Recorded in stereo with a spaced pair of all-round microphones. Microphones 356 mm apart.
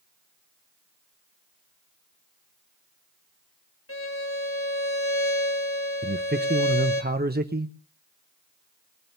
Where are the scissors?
No scissors in this recording.